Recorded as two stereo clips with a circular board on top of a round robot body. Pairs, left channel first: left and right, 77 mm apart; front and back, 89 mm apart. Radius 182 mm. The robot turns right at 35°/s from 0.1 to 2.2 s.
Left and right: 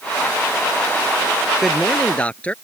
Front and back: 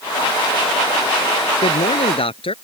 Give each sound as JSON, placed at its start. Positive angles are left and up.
{"t": 1.6, "sound": "a man speaking", "azimuth_deg": -5}